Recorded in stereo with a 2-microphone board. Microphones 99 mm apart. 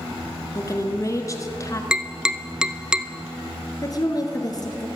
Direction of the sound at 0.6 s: 35° left (ahead or behind).